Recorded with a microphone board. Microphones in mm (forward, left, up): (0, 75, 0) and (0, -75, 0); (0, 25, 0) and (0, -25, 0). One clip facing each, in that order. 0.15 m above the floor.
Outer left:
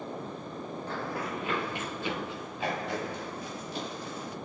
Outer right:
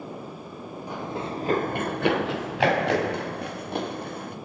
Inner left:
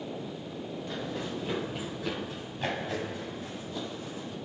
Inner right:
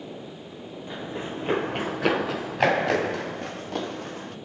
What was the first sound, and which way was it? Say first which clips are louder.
Running footsteps: outer right 4 dB, inner right 4 dB; 15° right (ahead or behind).